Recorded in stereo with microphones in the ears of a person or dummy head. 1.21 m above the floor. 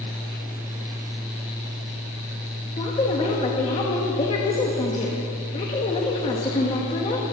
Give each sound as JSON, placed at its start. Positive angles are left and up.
{"t": 2.8, "sound": "a woman speaking", "side_deg": 25, "distance_m": 1.8}